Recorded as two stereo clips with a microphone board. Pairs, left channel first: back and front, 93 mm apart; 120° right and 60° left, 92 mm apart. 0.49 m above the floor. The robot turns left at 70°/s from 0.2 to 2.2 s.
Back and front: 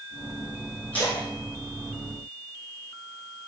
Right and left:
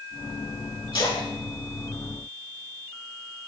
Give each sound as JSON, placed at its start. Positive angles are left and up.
{"t": 0.9, "sound": "a splash", "azimuth_deg": -105, "distance_m": 5.0}